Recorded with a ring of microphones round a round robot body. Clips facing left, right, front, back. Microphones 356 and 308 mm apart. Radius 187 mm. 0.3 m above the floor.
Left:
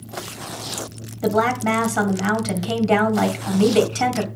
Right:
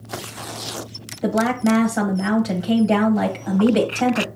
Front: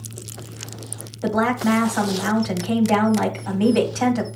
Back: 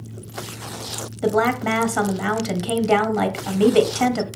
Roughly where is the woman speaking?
Behind left.